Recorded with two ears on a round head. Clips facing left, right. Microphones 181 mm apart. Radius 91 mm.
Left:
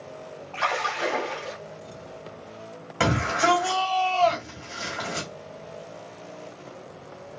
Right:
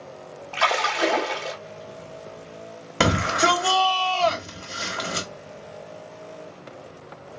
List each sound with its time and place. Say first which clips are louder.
0.5 s a splash: right 4 dB; 85° right, 1.1 m
3.0 s a shout: right 2 dB; 55° right (ahead or behind), 1.5 m